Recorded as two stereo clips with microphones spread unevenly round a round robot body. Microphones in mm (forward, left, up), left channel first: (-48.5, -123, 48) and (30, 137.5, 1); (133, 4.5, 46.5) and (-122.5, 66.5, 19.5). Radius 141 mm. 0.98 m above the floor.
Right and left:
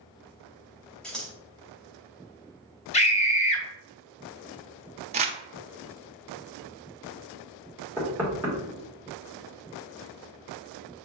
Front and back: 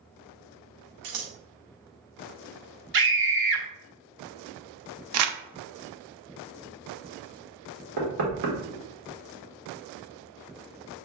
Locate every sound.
1.0 s scissors: 170° left, 0.8 m
2.9 s a scream: 175° right, 1.3 m
5.1 s crumpling: 140° left, 0.6 m
8.0 s knocking: 160° left, 1.7 m